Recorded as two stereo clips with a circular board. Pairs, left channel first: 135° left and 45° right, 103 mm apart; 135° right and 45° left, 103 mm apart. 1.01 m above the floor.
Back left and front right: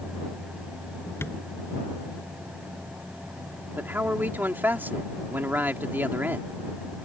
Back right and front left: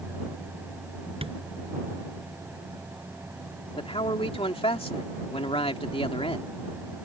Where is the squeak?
No squeak in this recording.